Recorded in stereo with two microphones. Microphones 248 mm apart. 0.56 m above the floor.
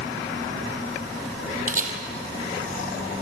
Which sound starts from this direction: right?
A camera shutter, at 1.7 s.